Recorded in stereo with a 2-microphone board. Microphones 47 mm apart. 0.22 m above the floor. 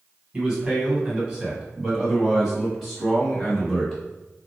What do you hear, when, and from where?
0.3 s a man speaking: 20° right (ahead or behind), 1.6 m; by 4.0 s 5° left (ahead or behind), 1.9 m